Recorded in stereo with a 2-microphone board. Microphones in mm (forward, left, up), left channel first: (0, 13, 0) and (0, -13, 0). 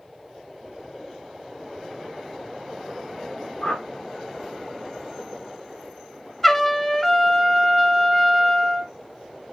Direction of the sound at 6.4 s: 15° left (ahead or behind).